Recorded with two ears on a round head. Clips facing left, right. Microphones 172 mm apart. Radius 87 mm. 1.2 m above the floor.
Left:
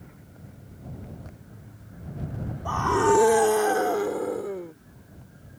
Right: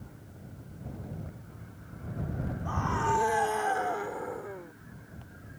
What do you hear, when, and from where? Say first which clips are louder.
2.6 s a scream: left 11 dB; 75° left (ahead or behind); by 4.7 s 45° left (ahead or behind)